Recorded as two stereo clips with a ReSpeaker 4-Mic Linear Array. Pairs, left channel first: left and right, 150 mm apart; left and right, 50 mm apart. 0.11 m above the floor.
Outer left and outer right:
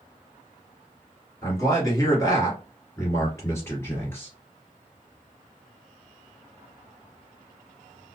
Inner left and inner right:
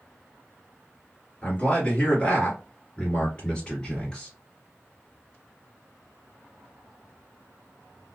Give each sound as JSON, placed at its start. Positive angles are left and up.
{"t": 1.4, "sound": "a man speaking", "side_deg": 25, "distance_m": 1.8}